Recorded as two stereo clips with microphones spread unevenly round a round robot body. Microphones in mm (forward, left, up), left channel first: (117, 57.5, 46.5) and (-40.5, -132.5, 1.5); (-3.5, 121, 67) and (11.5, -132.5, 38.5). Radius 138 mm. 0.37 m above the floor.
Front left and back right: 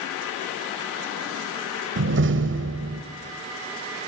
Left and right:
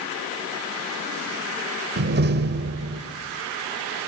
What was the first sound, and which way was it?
A door slam, 120° right.